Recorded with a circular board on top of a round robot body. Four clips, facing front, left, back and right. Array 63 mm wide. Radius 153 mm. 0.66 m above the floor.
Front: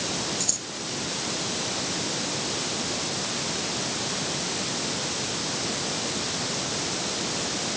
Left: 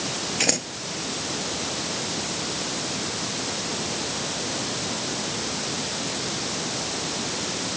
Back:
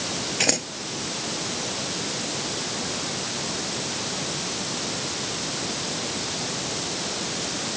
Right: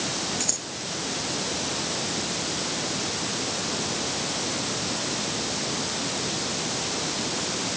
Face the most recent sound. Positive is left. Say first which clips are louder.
# left 8 dB, back 10 dB
turn(degrees=145)